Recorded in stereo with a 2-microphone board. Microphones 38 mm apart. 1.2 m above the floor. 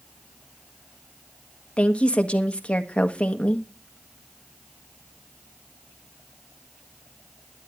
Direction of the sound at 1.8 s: 30° left (ahead or behind).